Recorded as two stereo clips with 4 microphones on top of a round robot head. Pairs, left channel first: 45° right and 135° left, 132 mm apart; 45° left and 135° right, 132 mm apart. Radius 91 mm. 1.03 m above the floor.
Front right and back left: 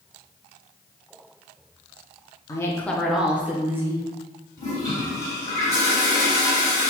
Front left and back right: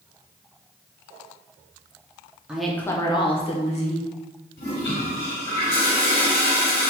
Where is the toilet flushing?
25° left, 1.7 m.